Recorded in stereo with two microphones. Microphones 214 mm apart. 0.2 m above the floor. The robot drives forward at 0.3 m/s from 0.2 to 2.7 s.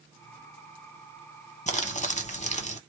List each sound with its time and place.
1.7 s crumpling: 35° left (ahead or behind), 0.8 m